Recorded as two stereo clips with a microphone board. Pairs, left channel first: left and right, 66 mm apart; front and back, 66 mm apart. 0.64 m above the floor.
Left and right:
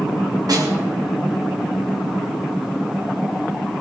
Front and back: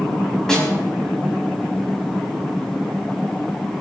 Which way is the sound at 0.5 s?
80° right.